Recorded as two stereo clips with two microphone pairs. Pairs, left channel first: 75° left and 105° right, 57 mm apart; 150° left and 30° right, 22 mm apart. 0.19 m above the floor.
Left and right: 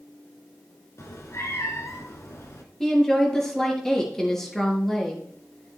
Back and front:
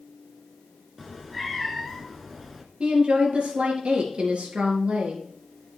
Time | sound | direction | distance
1.0 | a cat meowing | 55° left | 1.5 m
2.8 | a woman speaking | 10° right | 3.5 m